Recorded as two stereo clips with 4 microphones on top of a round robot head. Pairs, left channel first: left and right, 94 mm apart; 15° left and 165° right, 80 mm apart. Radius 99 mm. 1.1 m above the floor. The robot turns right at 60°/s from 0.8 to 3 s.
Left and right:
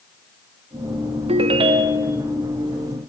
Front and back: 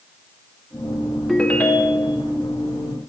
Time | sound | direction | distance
1.3 | a ringtone | 75° right | 0.7 m